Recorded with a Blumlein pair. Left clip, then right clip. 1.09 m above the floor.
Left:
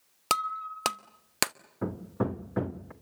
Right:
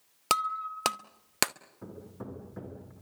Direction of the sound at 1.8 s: 35° left.